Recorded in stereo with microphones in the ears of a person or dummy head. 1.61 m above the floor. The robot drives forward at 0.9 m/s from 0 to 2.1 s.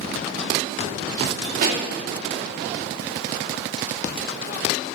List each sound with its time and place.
1.6 s a pop: 50° right (ahead or behind), 3 m